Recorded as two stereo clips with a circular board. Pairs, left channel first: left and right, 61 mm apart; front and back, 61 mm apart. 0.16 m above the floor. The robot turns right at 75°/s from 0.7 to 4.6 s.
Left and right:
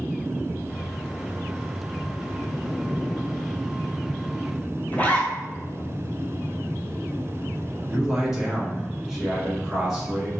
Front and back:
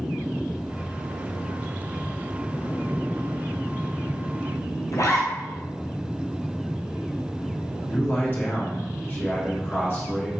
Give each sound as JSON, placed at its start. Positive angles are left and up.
{"t": 4.9, "sound": "a zipper", "azimuth_deg": 25, "distance_m": 1.0}
{"t": 7.9, "sound": "a man speaking", "azimuth_deg": -10, "distance_m": 1.8}